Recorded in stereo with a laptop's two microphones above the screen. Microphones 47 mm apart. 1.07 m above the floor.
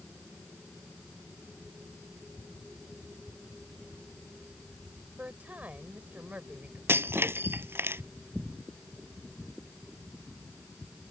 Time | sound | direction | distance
5.2 | a woman speaking | 40° right (ahead or behind) | ?
6.9 | breaking glass | 65° right (ahead or behind) | ?